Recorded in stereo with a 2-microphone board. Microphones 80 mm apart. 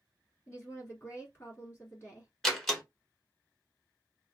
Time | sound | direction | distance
0.5 | a woman speaking | 30° left (ahead or behind) | 1.4 m
2.4 | a door slam | 5° left (ahead or behind) | 1.0 m